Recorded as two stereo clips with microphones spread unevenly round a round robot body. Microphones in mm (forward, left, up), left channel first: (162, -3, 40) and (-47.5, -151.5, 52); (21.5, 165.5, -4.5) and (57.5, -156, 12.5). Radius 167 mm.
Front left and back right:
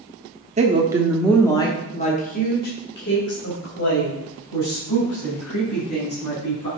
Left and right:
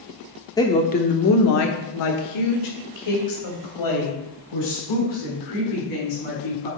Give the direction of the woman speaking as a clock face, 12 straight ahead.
6 o'clock.